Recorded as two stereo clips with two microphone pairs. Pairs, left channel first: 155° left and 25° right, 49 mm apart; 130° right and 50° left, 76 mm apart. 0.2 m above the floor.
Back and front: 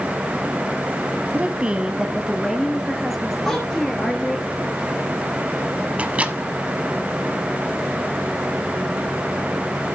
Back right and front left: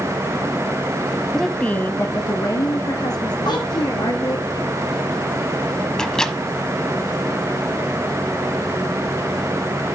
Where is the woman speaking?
40° right, 1.0 m; by 4.5 s 120° right, 3.5 m.